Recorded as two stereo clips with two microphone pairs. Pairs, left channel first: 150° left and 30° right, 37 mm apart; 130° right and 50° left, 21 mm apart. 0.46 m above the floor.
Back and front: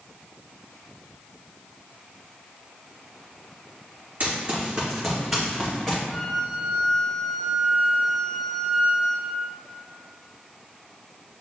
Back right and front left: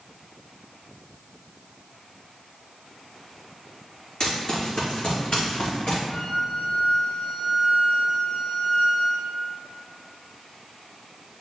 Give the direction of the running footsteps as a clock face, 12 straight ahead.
3 o'clock.